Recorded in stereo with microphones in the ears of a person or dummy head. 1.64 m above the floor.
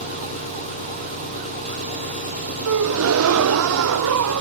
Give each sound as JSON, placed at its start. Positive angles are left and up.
{"t": 0.0, "sound": "an engine running", "side_deg": 40, "distance_m": 4.0}
{"t": 2.6, "sound": "a gasp", "side_deg": -75, "distance_m": 0.7}